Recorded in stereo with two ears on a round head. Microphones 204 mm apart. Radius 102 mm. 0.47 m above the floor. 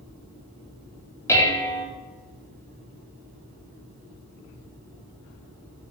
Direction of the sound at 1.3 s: 10° left (ahead or behind).